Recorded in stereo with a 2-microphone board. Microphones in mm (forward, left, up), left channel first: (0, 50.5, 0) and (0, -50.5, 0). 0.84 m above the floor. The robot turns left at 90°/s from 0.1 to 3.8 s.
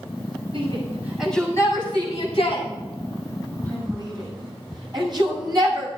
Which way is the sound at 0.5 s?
65° right (ahead or behind).